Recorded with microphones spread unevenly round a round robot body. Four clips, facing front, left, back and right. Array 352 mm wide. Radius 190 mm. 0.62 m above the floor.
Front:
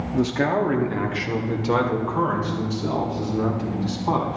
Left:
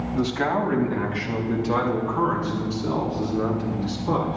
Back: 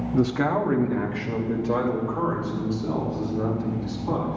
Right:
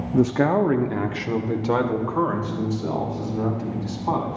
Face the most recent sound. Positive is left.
turn(degrees=-40)